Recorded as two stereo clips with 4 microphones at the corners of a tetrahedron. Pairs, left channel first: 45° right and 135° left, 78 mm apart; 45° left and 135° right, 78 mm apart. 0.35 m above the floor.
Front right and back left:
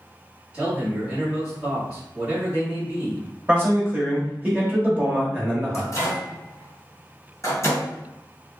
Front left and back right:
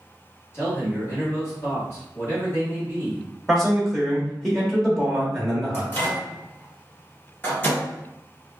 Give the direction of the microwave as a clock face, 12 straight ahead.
12 o'clock.